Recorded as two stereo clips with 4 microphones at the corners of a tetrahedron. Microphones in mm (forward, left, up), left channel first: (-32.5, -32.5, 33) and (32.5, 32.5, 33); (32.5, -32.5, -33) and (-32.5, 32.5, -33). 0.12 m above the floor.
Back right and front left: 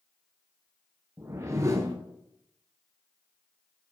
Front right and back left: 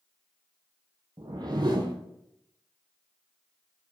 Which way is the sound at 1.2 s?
100° left.